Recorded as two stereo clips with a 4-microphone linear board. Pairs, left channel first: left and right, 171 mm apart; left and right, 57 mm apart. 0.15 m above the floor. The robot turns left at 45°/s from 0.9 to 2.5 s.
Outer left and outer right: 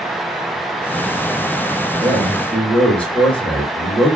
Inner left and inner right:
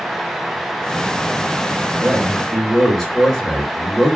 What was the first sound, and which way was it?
A man speaking, 5° right (ahead or behind).